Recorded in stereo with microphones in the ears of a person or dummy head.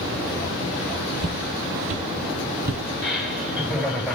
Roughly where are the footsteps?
Right.